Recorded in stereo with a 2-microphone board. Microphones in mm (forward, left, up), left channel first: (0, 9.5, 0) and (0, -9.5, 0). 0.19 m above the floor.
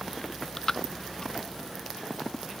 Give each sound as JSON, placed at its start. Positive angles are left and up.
{"t": 0.2, "sound": "chewing", "side_deg": 30}